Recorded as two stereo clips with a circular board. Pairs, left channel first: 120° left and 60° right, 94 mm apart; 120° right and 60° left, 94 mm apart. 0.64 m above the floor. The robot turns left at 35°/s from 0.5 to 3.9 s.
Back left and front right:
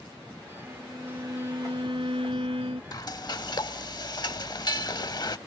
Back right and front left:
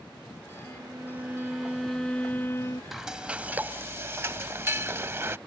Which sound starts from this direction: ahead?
A violin, at 0.6 s.